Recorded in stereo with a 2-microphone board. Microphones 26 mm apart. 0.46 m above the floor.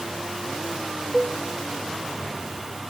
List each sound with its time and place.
1.1 s a cowbell: 5° right (ahead or behind), 1.4 m